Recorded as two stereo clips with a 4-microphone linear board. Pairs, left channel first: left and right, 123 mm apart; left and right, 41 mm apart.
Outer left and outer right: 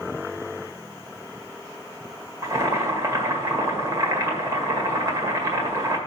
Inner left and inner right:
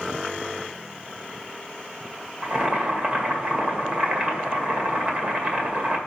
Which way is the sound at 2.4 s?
25° right (ahead or behind).